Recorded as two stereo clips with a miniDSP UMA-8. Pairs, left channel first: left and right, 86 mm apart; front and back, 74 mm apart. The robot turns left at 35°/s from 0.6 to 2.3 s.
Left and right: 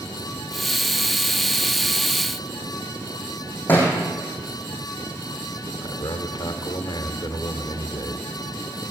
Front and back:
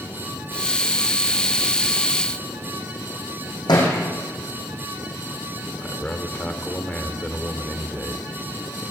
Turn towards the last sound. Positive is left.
turn(degrees=65)